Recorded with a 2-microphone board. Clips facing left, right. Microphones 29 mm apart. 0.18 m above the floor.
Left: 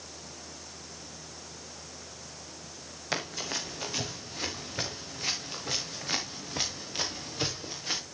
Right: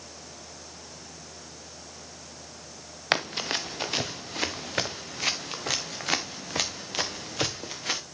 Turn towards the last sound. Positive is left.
turn(degrees=-80)